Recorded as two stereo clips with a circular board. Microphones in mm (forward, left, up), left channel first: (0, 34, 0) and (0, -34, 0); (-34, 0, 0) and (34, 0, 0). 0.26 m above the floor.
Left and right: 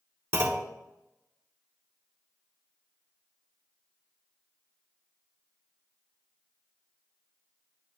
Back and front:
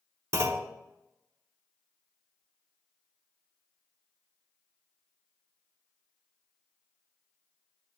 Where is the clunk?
40° right, 0.8 m.